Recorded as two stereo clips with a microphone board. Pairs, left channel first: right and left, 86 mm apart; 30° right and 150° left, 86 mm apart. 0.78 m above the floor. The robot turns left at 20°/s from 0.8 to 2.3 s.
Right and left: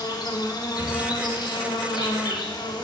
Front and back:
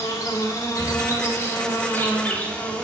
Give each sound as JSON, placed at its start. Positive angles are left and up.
{"t": 0.0, "sound": "an insect", "azimuth_deg": -70, "distance_m": 3.0}